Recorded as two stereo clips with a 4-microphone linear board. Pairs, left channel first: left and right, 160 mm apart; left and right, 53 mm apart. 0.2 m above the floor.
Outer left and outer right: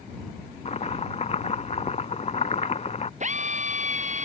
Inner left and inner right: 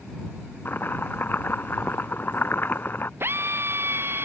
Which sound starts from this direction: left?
Chopping, at 0.7 s.